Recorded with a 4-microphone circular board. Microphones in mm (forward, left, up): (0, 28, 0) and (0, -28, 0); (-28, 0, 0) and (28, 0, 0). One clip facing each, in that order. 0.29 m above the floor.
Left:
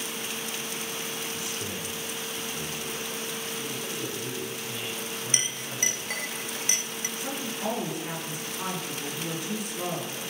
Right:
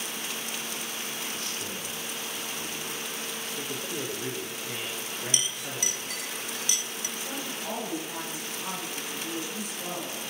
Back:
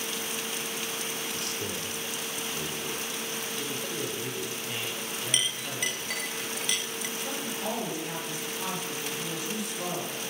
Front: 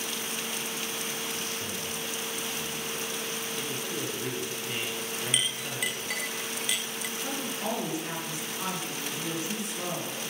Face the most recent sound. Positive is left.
turn(degrees=65)